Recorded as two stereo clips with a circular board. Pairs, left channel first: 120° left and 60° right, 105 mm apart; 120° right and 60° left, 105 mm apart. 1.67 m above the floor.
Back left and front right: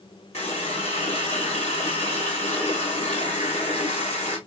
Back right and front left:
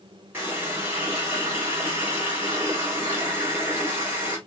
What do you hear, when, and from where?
0.3 s a running tap: 130° left, 3 m